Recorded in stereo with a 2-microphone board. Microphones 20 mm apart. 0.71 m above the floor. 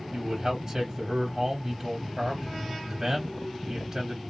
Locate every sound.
0.1 s a man speaking: 30° right (ahead or behind), 1.5 m